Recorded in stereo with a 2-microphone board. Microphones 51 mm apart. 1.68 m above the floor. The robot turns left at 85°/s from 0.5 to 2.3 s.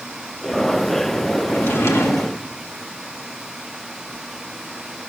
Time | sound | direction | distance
1.5 | a drawer | 140° left | 1.7 m